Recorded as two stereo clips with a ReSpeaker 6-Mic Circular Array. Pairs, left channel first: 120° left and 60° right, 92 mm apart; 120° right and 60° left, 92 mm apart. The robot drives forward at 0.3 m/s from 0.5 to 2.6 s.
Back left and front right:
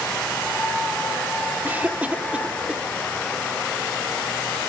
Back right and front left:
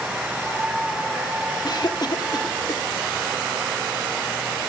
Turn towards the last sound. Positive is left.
turn(degrees=-135)